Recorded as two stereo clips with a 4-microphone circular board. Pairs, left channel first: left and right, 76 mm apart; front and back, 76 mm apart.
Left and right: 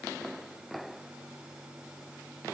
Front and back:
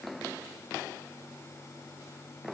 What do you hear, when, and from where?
Only background noise.